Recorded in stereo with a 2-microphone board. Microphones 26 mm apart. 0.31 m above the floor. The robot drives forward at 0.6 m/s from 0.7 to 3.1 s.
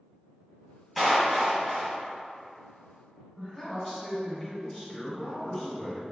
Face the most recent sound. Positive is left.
turn(degrees=25)  # may be behind; listen again after turning